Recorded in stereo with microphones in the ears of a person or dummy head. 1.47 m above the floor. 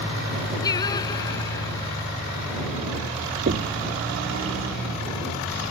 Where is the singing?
25° left (ahead or behind).